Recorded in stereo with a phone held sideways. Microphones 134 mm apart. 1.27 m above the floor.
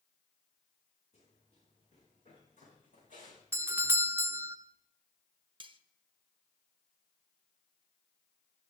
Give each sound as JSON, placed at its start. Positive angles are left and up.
{"t": 1.1, "sound": "running footsteps", "side_deg": 50, "distance_m": 6.5}
{"t": 3.5, "sound": "a doorbell", "side_deg": -20, "distance_m": 0.5}
{"t": 5.6, "sound": "cutlery clinking", "side_deg": -40, "distance_m": 0.6}